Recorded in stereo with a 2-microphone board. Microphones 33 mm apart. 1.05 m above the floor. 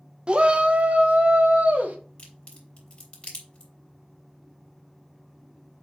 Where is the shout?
30° right (ahead or behind), 0.8 m; by 2.0 s 55° right (ahead or behind), 1.7 m.